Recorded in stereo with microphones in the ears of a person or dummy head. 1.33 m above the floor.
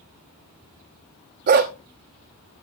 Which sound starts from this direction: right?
A dog barking, at 1.5 s.